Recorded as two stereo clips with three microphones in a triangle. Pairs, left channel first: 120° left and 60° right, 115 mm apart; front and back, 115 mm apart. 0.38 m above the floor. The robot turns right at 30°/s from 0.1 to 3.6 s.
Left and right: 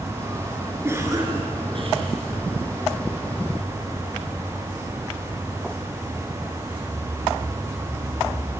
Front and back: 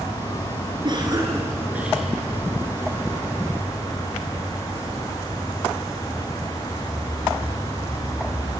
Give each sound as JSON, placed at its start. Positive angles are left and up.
{"t": 0.8, "sound": "a cough", "azimuth_deg": -130, "distance_m": 6.5}